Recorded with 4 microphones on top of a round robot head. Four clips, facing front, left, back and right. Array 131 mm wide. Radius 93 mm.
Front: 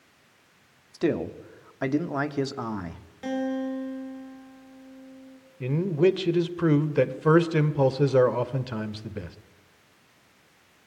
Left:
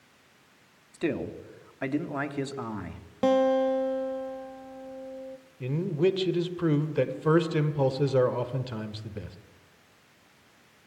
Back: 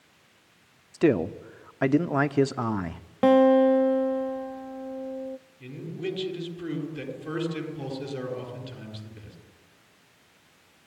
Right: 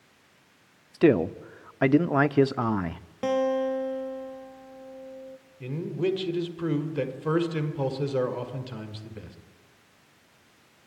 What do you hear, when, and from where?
0.9 s a man speaking: 110° right, 1.0 m
3.2 s a guitar: 160° left, 0.9 m
5.6 s a man speaking: 5° left, 2 m